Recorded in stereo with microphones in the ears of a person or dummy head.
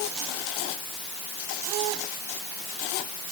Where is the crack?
I don't hear a crack.